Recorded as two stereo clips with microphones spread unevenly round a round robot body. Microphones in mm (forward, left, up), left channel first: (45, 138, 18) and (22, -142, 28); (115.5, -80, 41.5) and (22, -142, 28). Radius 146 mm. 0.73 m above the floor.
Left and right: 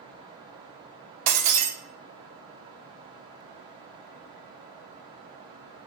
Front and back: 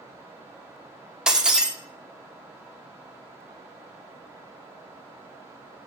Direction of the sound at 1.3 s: 65° right.